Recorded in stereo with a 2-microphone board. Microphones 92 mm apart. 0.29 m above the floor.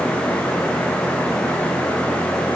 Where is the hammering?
I don't hear hammering.